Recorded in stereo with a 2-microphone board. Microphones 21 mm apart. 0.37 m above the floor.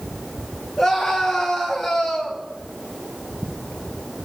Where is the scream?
Centre (ahead or behind), 7 m; by 2.4 s 5° left (ahead or behind), 7.5 m.